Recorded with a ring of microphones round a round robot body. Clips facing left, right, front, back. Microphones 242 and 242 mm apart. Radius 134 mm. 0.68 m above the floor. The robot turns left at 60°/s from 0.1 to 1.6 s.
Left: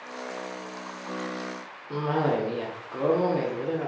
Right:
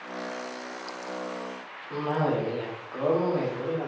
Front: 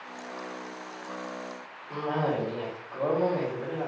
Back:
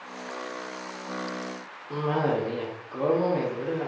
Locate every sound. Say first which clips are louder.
1.9 s a cough: left 1 dB, back 3 dB; 135° left, 1.2 m